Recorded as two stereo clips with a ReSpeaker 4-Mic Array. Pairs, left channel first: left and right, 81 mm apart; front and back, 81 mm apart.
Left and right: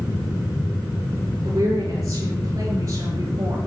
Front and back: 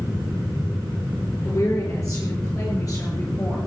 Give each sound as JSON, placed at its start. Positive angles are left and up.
{"t": 1.4, "sound": "a woman speaking", "azimuth_deg": -45, "distance_m": 8.5}